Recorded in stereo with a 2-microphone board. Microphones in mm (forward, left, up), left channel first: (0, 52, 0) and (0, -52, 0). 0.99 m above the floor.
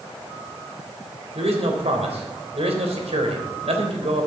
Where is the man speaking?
80° right, 3.5 m.